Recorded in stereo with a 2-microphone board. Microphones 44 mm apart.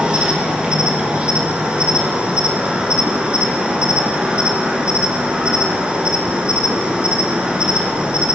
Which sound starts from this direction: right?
An insect, at 0.0 s.